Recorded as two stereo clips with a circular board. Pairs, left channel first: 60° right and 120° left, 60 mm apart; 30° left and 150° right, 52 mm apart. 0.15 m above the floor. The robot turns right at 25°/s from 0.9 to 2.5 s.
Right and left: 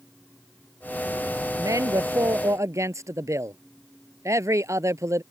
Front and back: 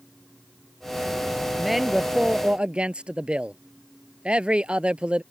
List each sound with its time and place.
1.6 s a man speaking: 120° left; by 5.2 s 145° left